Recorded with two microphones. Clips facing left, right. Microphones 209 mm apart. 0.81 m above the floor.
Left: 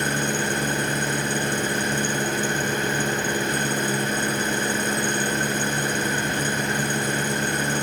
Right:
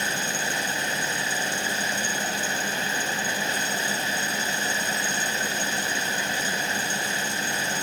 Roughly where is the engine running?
Left.